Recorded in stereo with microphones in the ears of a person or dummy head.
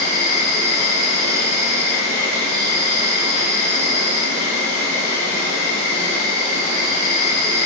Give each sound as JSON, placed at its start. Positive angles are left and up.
{"t": 0.0, "sound": "an insect", "side_deg": -25, "distance_m": 1.4}